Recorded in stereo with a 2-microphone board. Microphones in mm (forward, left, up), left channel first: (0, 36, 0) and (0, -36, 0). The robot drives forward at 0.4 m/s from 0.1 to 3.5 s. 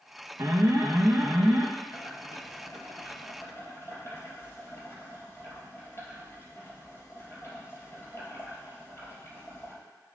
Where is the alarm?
50° right (ahead or behind), 1.2 m; by 1.7 s 35° right (ahead or behind), 1.5 m.